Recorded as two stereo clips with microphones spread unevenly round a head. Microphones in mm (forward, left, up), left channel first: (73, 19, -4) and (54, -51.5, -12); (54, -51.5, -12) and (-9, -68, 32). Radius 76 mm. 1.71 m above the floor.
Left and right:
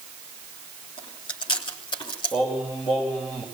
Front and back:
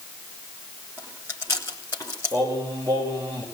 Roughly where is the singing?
Behind left.